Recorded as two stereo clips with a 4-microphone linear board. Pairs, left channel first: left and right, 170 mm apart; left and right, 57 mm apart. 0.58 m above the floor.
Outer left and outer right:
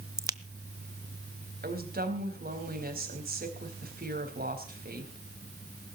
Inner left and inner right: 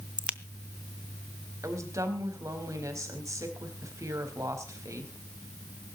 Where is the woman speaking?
65° right (ahead or behind), 4 m.